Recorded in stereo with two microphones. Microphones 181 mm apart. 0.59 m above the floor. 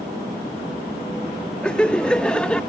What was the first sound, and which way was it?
Laughter, 5° left (ahead or behind).